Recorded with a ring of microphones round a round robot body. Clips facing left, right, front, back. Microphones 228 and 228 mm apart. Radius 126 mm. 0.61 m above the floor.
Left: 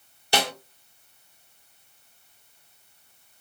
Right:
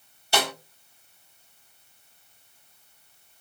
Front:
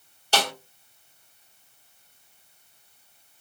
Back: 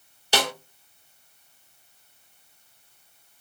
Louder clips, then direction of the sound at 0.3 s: Left 1 dB, back 1 dB; 105° left.